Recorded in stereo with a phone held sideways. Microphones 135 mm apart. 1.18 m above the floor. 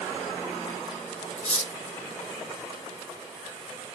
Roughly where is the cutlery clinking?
Left.